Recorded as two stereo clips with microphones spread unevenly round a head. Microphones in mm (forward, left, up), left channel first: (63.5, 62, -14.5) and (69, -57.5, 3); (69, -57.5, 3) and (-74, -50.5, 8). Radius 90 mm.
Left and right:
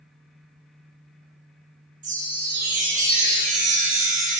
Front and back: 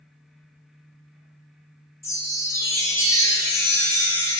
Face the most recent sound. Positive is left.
turn(degrees=-75)